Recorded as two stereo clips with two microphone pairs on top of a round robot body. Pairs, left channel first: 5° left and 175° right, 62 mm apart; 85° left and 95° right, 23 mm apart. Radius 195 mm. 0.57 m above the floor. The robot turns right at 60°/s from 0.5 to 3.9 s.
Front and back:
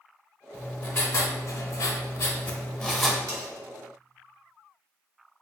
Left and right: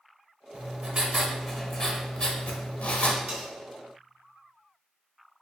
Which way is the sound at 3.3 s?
140° right.